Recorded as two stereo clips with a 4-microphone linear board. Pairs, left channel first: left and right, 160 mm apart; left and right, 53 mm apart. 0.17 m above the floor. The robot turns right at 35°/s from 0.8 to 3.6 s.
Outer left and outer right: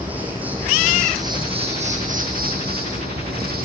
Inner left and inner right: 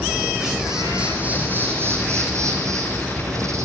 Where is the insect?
170° right, 7 m; by 3.6 s 70° right, 7 m.